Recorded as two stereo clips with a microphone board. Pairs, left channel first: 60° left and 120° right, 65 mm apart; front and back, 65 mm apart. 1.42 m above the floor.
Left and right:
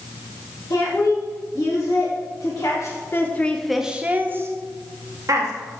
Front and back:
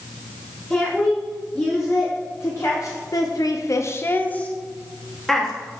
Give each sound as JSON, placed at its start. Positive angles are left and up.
{"t": 0.7, "sound": "a woman speaking", "azimuth_deg": 60, "distance_m": 2.0}